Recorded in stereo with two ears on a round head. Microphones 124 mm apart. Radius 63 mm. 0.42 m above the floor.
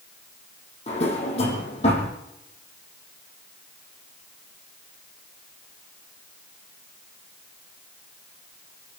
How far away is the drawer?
About 7 m.